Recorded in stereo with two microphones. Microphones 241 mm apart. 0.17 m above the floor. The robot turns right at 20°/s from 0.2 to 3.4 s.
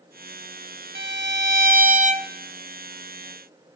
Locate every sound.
0.9 s a violin: 55° right (ahead or behind), 0.8 m; by 2.3 s 25° right (ahead or behind), 0.8 m